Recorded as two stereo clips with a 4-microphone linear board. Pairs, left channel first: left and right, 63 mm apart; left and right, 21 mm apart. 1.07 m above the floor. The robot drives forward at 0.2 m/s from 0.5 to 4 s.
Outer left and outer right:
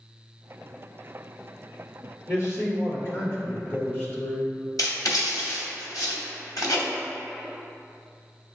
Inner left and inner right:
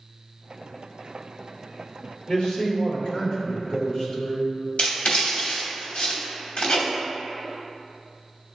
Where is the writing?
85° left, 0.9 m.